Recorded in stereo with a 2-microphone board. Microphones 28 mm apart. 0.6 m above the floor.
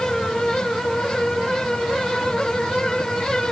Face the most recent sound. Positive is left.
No sound to turn to.